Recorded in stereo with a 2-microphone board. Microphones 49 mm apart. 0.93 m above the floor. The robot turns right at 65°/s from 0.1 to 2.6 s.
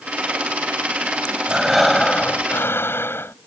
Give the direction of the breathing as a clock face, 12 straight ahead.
1 o'clock.